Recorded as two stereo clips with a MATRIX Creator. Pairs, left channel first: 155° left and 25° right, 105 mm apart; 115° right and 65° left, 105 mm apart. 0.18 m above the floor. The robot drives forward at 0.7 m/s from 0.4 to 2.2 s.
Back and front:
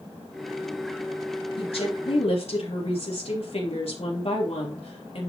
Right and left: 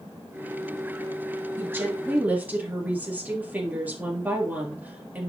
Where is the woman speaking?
135° left, 3 m; by 5.3 s 140° left, 3.5 m.